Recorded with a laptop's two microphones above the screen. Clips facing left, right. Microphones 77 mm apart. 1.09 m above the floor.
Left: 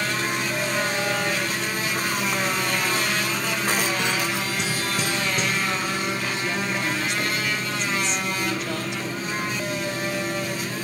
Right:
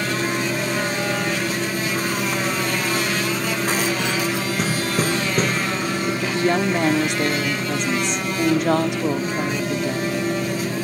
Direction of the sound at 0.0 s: 30° right (ahead or behind).